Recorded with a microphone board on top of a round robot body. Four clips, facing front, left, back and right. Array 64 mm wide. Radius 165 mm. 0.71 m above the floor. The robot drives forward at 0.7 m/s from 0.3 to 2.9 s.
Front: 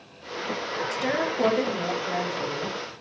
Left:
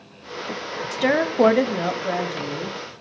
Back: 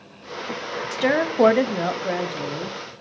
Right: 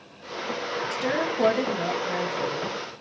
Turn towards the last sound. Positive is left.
turn(degrees=165)